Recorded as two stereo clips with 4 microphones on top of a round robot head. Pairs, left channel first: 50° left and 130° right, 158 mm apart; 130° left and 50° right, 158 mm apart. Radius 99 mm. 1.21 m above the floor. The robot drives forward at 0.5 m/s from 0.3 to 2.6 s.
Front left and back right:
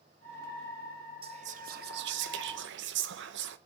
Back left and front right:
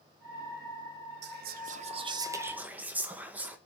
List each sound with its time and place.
1.2 s whispering: 70° right, 0.6 m; by 3.6 s 130° right, 0.8 m